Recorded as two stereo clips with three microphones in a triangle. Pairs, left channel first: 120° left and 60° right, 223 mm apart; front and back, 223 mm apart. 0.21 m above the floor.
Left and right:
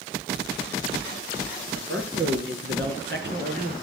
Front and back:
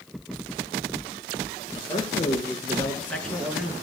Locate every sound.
1.8 s a man speaking: 65° right, 4.5 m; by 3.7 s 95° right, 3 m